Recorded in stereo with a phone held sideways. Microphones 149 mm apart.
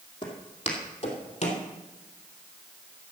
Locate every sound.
0.2 s footsteps: 35° left (ahead or behind), 3 m; by 1.6 s 50° left (ahead or behind), 2.5 m